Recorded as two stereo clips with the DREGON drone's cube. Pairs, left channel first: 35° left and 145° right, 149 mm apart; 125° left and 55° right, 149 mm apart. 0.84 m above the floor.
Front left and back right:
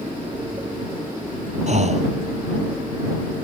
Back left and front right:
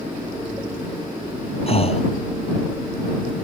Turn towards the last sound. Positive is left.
turn(degrees=175)